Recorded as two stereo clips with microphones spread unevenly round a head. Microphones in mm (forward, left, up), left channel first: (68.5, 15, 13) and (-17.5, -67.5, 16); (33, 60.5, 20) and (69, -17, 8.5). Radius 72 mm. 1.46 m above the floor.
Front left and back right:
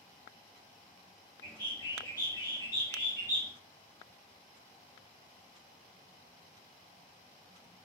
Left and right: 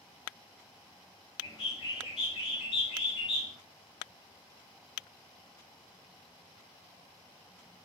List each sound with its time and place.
1.4 s a bird: 115° left, 1.7 m